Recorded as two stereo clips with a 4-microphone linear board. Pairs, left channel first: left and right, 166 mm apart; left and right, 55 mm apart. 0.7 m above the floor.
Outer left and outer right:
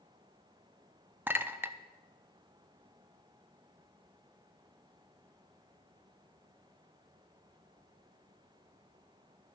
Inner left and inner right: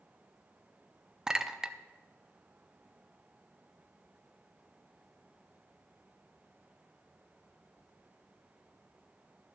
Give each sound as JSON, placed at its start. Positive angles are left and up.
{"t": 1.3, "sound": "a clink", "side_deg": -15, "distance_m": 0.5}